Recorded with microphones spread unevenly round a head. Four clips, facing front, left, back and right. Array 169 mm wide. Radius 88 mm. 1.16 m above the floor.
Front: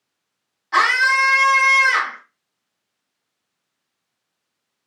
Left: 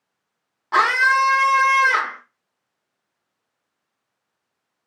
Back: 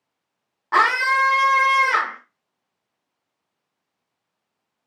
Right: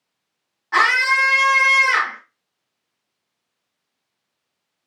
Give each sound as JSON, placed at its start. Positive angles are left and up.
{"t": 0.7, "sound": "a scream", "azimuth_deg": 160, "distance_m": 1.8}